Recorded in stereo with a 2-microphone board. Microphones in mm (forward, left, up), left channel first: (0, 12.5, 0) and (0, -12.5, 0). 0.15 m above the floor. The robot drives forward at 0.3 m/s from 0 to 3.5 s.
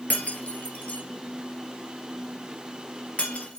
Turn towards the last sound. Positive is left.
turn(degrees=60)  # may be behind; listen again after turning